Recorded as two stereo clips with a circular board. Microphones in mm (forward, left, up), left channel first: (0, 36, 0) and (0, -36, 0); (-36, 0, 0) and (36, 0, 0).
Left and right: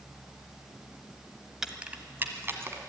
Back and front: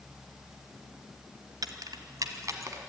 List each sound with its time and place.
1.6 s keys jangling: 5° right, 1.2 m; by 2.8 s 40° right, 2 m